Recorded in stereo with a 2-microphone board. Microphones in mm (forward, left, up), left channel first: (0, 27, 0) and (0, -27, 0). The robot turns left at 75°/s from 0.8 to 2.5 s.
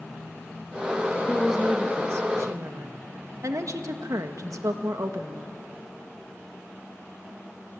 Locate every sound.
1.3 s a woman speaking: 5° left, 1.9 m; by 5.5 s 85° right, 1.9 m